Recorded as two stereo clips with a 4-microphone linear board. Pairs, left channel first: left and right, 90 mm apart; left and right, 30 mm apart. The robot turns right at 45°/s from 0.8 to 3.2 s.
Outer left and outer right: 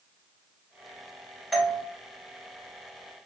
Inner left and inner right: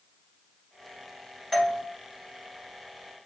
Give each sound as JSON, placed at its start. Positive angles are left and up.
{"t": 1.5, "sound": "a doorbell", "side_deg": 0, "distance_m": 1.8}